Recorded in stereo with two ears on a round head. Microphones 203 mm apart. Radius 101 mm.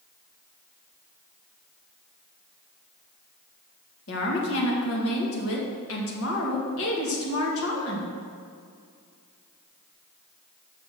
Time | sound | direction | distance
4.1 | a woman speaking | 70° left (ahead or behind) | 2.0 m